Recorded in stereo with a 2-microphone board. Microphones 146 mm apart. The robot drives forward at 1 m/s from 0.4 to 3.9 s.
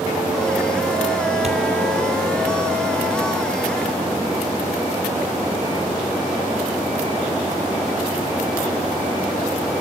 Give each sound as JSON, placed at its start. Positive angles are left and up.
{"t": 1.4, "sound": "a thud", "side_deg": -50, "distance_m": 2.5}